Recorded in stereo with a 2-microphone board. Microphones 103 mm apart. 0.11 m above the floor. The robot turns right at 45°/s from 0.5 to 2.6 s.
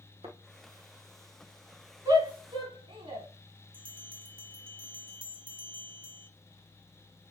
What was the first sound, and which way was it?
A thud, 70° right (ahead or behind).